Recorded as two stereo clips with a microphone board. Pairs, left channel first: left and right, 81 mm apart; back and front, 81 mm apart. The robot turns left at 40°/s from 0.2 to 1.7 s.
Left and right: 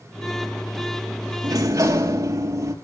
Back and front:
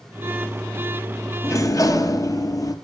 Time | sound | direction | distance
1.4 | a sliding door | 130° right | 1.1 m